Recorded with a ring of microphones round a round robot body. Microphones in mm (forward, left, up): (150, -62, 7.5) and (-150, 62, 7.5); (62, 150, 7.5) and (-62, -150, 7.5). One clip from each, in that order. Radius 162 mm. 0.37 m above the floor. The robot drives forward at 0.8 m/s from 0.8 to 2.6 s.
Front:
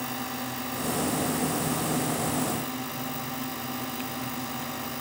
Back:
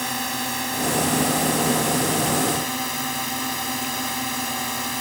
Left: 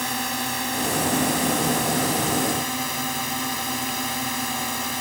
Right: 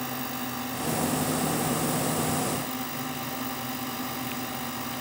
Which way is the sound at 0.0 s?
110° left.